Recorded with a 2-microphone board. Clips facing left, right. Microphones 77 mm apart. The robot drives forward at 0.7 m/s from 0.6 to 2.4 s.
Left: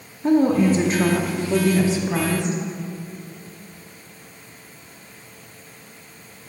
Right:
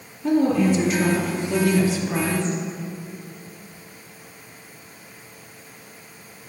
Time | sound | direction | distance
0.2 | a woman speaking | 35° left (ahead or behind) | 0.7 m